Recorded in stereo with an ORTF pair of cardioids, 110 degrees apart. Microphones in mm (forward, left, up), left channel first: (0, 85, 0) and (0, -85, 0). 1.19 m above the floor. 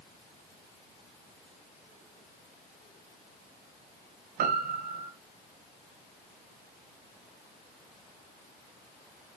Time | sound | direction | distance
4.4 | a piano | 55° right | 0.6 m